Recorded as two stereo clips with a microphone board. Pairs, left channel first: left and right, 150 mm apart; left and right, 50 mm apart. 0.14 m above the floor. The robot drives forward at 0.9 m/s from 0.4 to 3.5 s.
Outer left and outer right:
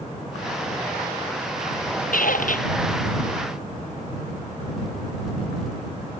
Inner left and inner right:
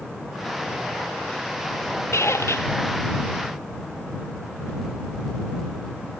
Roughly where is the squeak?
Left.